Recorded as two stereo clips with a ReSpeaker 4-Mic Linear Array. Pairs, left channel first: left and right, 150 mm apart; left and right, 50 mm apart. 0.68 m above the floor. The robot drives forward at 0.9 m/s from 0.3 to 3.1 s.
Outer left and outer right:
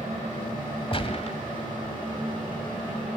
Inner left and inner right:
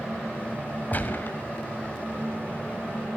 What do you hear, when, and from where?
0.9 s a gunshot: 40° left (ahead or behind), 1.7 m; by 1.4 s 50° left (ahead or behind), 1.4 m